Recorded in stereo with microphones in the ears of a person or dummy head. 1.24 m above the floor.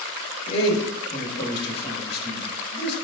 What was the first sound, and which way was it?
A man speaking, 35° left (ahead or behind).